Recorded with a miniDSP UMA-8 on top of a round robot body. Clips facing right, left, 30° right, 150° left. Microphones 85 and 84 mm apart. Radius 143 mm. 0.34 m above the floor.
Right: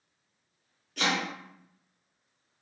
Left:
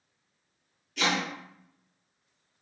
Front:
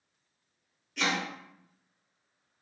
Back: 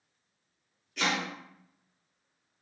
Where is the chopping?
120° right, 2.5 m.